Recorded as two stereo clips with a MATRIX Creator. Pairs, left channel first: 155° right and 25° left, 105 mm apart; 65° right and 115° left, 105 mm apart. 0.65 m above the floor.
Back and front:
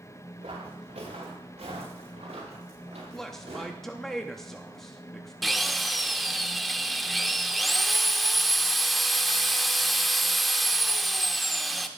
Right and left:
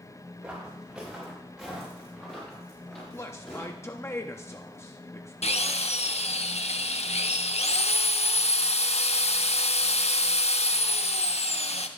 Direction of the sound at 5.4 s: 65° right.